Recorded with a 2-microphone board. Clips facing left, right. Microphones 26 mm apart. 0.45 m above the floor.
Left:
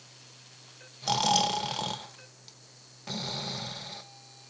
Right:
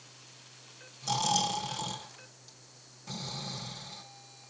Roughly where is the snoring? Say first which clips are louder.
Left 4 dB; left.